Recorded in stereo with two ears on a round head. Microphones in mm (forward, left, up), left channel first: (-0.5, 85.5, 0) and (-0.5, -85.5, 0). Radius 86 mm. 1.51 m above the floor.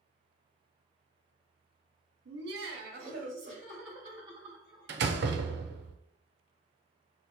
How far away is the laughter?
About 1.4 m.